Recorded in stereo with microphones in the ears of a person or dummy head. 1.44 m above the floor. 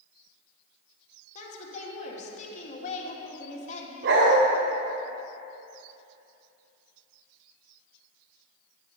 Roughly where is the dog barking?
Right.